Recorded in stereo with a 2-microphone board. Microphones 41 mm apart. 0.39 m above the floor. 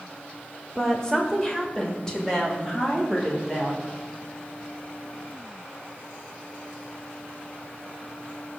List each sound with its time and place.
0.8 s a woman speaking: 15° left (ahead or behind), 1.3 m; by 3.9 s 10° left (ahead or behind), 3.5 m